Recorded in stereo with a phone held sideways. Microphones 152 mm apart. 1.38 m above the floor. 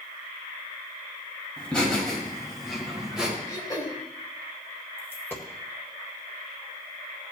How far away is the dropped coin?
About 1.5 m.